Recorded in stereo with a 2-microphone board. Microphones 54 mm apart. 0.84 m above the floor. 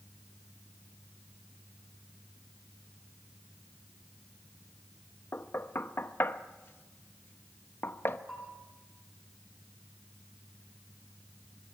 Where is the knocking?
45° left (ahead or behind), 0.9 m.